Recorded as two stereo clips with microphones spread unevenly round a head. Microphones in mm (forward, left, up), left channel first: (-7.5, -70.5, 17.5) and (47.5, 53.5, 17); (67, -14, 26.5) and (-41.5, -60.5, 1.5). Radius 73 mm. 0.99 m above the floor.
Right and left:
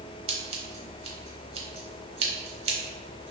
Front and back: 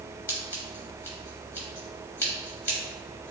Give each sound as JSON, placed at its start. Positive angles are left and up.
{"t": 0.3, "sound": "scissors", "azimuth_deg": 70, "distance_m": 0.9}